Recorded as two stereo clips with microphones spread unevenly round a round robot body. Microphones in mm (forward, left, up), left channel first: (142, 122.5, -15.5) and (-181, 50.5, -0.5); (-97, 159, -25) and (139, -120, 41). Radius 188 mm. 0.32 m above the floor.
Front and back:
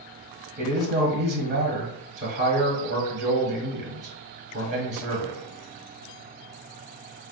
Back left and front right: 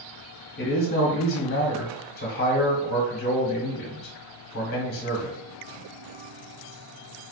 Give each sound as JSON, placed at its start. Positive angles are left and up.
{"t": 0.6, "sound": "a man speaking", "azimuth_deg": 140, "distance_m": 1.1}